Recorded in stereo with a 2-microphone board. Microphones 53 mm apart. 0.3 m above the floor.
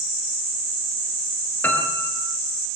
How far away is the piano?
About 6 m.